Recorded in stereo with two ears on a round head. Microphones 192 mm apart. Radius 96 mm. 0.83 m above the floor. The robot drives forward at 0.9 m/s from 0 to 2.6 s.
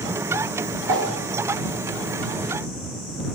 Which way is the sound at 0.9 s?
75° right (ahead or behind).